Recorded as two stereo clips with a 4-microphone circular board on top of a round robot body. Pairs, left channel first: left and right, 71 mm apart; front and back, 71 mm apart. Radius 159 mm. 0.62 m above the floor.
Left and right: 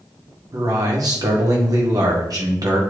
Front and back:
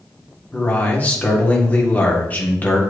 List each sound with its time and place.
0.5 s a man speaking: 65° right, 1.9 m